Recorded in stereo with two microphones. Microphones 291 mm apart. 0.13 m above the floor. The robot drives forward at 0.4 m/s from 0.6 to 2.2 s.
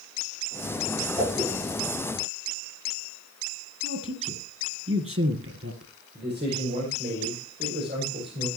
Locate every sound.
1.2 s a whoosh: 20° right (ahead or behind), 8 m
3.8 s a man speaking: 50° right (ahead or behind), 2.5 m
6.2 s a man speaking: 35° right (ahead or behind), 5.5 m